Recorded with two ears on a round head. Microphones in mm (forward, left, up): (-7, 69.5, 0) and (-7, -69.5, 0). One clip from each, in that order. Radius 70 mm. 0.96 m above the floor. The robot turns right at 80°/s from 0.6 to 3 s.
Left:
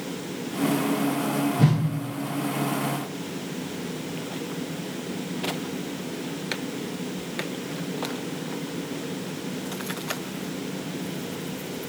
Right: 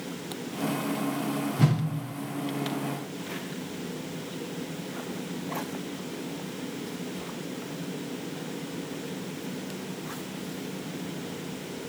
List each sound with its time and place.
1.6 s a whoosh: 30° right (ahead or behind), 0.6 m; by 1.8 s 35° right (ahead or behind), 0.6 m